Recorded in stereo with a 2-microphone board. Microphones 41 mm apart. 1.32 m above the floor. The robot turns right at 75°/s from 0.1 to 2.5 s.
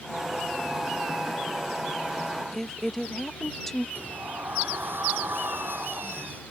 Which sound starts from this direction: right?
A sliding door, at 4.0 s.